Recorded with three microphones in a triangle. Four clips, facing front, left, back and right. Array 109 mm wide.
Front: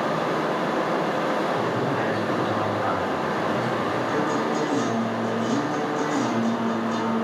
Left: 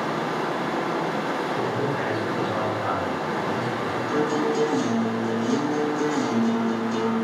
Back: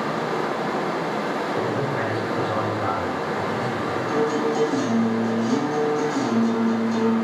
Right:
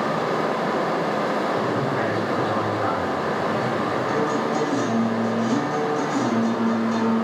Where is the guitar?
80° right, 1.5 m.